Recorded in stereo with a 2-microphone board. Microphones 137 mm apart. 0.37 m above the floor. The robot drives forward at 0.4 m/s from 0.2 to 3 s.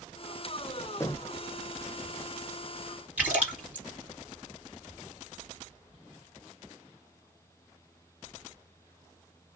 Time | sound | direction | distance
1.0 | knocking | 20° left (ahead or behind) | 0.7 m
3.2 | a splash | 10° right (ahead or behind) | 1.9 m